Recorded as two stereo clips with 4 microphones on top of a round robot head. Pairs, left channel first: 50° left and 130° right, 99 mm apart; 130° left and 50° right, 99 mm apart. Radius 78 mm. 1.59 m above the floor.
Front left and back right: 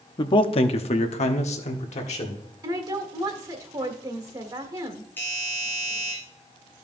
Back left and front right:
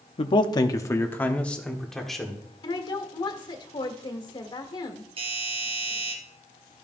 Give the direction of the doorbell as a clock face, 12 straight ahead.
1 o'clock.